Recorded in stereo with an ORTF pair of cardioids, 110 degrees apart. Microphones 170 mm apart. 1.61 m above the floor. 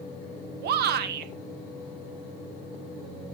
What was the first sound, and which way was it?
A shout, 70° right.